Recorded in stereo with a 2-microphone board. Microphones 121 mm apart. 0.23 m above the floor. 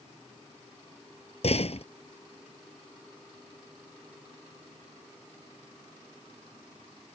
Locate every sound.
1.4 s a door slam: 60° left (ahead or behind)